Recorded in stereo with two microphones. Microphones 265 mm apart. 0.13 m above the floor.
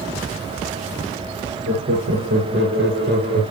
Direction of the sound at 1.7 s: 50° right (ahead or behind).